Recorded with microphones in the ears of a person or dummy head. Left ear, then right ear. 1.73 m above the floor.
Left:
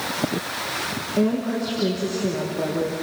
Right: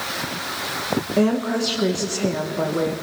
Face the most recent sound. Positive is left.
turn(degrees=-30)  # may be behind; listen again after turning